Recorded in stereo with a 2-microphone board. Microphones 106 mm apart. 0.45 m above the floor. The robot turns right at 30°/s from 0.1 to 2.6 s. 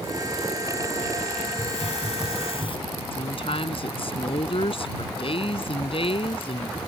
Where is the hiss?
95° left; by 2.8 s 125° left.